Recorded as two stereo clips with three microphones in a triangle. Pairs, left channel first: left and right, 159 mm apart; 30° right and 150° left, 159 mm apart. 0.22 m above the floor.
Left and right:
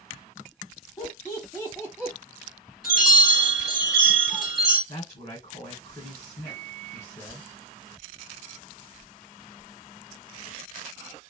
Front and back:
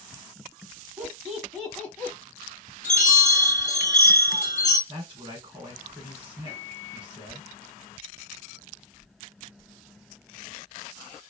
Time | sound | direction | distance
1.0 | laughter | 85° left | 1.3 m
2.8 | a chime | 5° right | 1.8 m
4.9 | a man speaking | 100° left | 1.4 m
6.5 | a microwave | 5° right | 1.8 m